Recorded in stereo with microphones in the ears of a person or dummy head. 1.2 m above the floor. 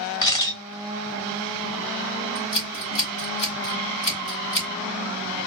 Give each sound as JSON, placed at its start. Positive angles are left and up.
{"t": 0.2, "sound": "a camera shutter", "side_deg": 25, "distance_m": 2.0}
{"t": 2.4, "sound": "scissors", "side_deg": 30, "distance_m": 1.8}